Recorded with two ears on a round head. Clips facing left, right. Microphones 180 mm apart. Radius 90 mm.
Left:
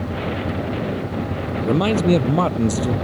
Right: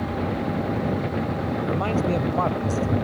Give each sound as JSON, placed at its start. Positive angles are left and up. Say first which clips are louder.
{"t": 1.6, "sound": "a man speaking", "louder": "left 9 dB", "side_deg": 50}